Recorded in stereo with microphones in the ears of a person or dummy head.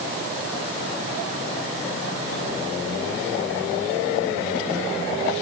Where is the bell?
I don't hear a bell.